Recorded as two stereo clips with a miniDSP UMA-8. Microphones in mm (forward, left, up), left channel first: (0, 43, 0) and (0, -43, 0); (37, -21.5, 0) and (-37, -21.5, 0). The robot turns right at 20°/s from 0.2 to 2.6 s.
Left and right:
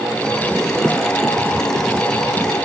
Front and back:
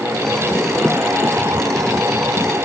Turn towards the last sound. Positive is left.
No sound to turn to.